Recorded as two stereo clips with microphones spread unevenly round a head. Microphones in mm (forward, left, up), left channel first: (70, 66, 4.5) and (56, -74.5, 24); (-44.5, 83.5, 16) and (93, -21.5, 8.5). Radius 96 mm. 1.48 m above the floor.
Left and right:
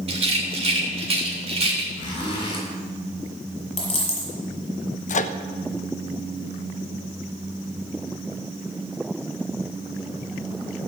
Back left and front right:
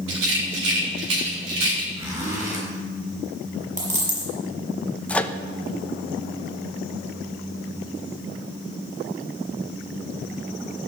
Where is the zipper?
30° left, 7 m.